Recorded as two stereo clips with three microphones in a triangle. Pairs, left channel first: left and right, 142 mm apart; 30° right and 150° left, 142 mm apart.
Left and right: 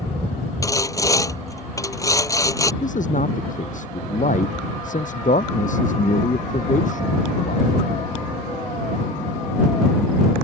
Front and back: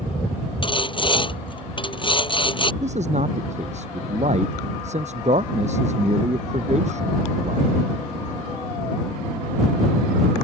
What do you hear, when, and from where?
0.6 s sawing: 20° left
2.8 s a man speaking: 115° left